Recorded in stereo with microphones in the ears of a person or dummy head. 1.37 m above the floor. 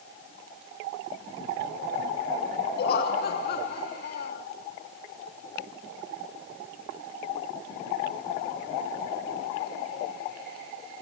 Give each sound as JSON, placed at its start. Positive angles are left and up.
{"t": 2.8, "sound": "laughter", "side_deg": 60, "distance_m": 0.9}